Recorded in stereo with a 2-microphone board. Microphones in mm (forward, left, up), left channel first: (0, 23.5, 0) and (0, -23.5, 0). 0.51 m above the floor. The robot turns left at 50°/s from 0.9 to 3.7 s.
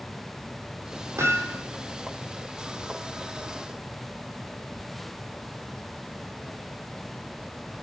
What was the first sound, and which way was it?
Hammering, 85° right.